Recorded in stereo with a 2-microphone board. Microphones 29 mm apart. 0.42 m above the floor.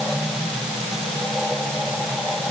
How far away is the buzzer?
No buzzer in this recording.